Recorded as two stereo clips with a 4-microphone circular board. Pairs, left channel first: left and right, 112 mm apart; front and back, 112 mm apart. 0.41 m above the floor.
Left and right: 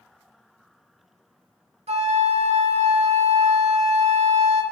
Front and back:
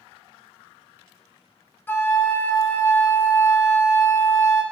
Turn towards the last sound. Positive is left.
turn(degrees=-70)